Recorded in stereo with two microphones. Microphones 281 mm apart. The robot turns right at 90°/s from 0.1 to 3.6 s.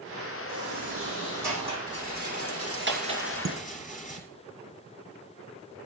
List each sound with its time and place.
0.5 s a sliding door: 90° left, 9.5 m; by 1.8 s 155° right, 9.5 m
1.9 s a rattle: 130° right, 2.5 m; by 4.2 s 25° left, 2.5 m
3.5 s dishes clattering: 60° right (ahead or behind), 1.6 m; by 4.3 s 50° right (ahead or behind), 1.6 m